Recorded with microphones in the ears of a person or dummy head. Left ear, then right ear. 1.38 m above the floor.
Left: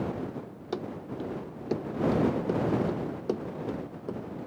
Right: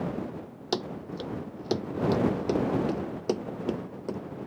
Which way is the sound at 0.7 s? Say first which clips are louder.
Right 3 dB; 30° right (ahead or behind).